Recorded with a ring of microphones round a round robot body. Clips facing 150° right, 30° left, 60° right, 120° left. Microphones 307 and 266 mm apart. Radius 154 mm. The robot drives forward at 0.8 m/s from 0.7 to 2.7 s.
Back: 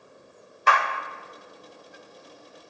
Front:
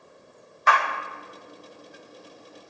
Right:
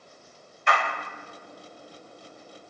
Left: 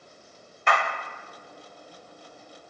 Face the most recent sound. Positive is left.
turn(degrees=165)